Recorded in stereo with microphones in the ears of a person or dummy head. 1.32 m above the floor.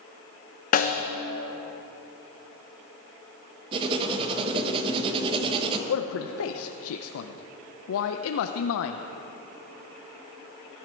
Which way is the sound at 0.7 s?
40° left (ahead or behind).